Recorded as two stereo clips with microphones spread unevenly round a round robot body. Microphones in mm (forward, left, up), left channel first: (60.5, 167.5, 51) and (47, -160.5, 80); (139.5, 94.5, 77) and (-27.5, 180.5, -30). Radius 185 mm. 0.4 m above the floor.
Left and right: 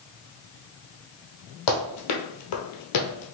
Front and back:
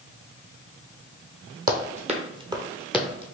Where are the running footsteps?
95° left, 1.2 m; by 3.4 s 35° left, 0.8 m.